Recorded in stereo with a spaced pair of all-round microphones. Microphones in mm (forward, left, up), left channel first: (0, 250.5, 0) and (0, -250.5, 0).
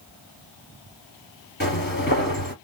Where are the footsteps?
20° left (ahead or behind), 1.8 m.